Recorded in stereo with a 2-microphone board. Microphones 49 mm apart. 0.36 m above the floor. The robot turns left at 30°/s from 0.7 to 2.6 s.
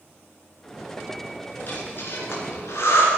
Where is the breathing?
35° left (ahead or behind), 3.5 m; by 3.1 s 65° left (ahead or behind), 3.5 m.